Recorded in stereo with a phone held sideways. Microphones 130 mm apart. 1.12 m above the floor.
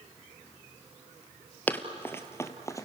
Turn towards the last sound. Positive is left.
turn(degrees=25)  # may be behind; listen again after turning